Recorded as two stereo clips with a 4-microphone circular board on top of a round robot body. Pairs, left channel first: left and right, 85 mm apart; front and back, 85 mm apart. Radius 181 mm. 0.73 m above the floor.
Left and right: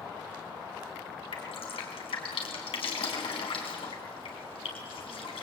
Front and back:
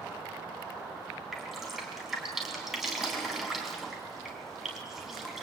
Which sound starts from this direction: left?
Dripping, at 1.3 s.